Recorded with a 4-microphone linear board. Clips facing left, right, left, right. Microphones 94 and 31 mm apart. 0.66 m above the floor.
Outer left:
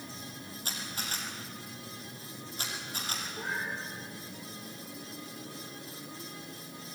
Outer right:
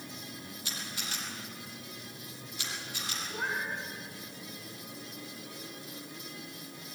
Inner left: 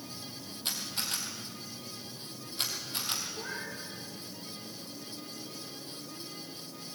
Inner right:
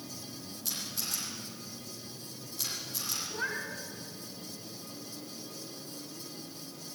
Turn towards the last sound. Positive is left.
turn(degrees=-80)